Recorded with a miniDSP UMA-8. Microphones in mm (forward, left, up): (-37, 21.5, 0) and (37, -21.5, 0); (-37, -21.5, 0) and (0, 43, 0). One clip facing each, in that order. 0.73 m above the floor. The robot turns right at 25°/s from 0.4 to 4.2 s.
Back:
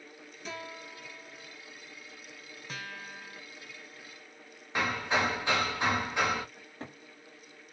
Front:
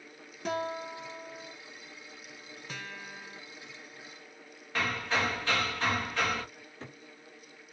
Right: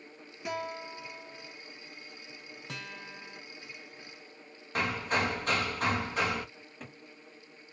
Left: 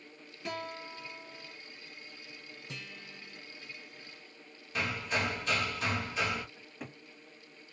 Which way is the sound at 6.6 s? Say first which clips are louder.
Back 2 dB, left 2 dB; 140° left.